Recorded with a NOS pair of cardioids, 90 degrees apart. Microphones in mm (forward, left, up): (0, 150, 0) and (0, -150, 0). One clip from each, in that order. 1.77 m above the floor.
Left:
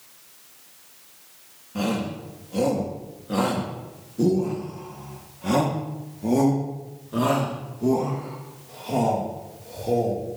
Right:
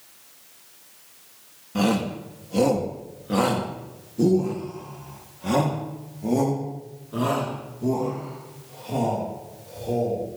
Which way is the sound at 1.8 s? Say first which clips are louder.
Right 3 dB; 35° right.